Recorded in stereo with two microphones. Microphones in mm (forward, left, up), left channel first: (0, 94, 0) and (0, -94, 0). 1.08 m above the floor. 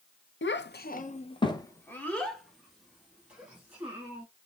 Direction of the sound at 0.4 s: 70° left (ahead or behind).